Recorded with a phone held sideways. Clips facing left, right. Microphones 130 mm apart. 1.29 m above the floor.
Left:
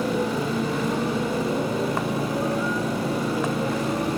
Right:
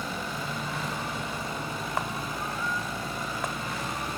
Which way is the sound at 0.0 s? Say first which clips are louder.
Left 11 dB; 75° left (ahead or behind).